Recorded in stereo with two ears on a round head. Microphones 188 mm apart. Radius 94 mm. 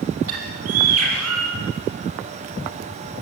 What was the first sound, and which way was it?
A bird, 80° right.